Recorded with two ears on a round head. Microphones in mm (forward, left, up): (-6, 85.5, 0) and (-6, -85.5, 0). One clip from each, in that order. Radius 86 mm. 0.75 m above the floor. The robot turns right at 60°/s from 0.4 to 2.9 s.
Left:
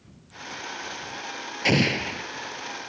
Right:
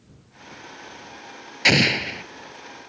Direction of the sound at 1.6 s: 45° right.